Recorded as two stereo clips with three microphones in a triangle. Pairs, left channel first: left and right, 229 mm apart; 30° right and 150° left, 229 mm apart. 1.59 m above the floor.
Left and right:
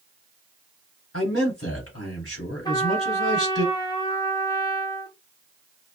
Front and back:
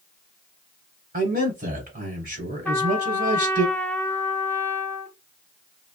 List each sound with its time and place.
1.1 s a man speaking: 105° left, 1.1 m
2.6 s a trumpet: 40° left, 0.7 m